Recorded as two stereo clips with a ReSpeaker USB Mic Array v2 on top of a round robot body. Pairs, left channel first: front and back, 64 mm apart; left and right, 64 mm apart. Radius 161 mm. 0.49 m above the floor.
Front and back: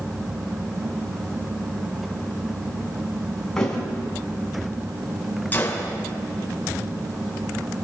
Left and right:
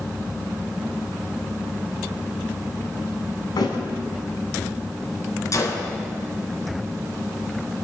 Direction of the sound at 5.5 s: 60° left.